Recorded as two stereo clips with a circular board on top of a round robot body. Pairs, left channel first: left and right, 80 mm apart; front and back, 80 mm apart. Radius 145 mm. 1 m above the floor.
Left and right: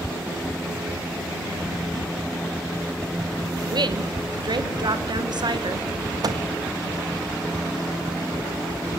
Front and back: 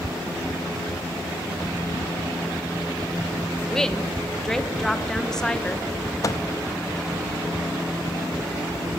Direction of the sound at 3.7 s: 80° right.